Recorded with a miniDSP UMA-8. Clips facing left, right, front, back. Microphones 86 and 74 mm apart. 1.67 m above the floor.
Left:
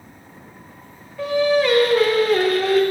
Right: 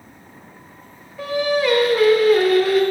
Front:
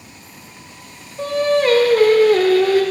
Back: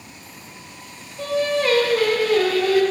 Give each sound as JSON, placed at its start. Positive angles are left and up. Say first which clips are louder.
{"t": 1.2, "sound": "singing", "louder": "left 2 dB, front 4 dB", "azimuth_deg": -5, "distance_m": 0.7}